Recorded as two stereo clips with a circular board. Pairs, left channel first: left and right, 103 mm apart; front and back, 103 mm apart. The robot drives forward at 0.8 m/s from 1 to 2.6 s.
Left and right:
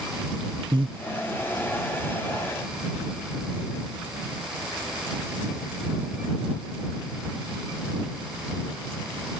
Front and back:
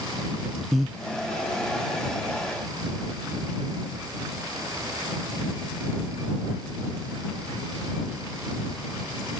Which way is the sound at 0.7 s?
90° right.